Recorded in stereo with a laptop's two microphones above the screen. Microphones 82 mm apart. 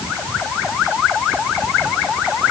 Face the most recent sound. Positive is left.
No sound to turn to.